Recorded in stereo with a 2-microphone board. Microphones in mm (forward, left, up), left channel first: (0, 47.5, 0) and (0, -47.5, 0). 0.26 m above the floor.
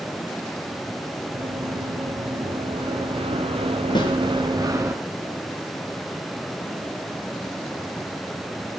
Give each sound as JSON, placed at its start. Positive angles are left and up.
{"t": 1.3, "sound": "running footsteps", "side_deg": -55, "distance_m": 3.0}
{"t": 4.0, "sound": "a snare drum", "side_deg": 55, "distance_m": 3.0}